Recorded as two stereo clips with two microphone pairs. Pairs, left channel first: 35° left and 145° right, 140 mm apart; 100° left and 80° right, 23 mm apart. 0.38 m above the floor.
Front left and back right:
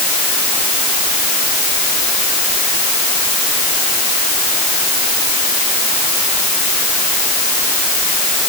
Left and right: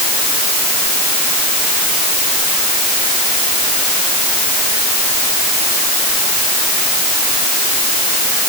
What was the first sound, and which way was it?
Only background noise.